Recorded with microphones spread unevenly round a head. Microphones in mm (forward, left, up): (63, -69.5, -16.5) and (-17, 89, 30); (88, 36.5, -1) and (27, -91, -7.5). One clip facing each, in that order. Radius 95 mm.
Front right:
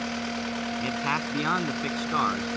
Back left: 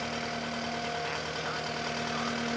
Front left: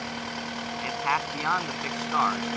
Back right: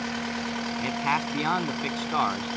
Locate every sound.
0.8 s a man speaking: 55° right; by 2.6 s 50° right